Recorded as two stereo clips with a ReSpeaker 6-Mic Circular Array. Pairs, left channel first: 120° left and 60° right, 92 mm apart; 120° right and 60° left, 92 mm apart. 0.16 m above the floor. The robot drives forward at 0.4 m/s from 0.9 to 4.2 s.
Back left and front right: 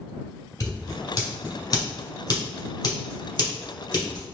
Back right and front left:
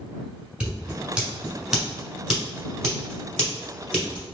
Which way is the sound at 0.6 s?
130° left.